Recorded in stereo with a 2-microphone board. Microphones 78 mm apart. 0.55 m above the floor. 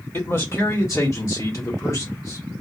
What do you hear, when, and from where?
0.1 s a man speaking: 35° left (ahead or behind), 1.3 m